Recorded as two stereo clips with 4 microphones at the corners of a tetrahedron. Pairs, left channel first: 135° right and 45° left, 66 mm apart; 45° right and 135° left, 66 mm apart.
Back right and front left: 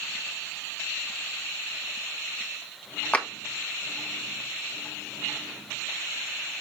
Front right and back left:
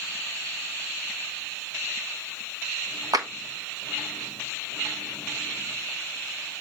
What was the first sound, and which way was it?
A clap, 155° left.